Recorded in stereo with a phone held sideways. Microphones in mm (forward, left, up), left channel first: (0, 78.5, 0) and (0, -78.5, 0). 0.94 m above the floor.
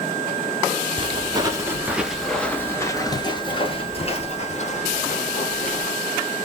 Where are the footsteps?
35° right (ahead or behind), 1.0 m; by 5.9 s 50° left (ahead or behind), 2 m.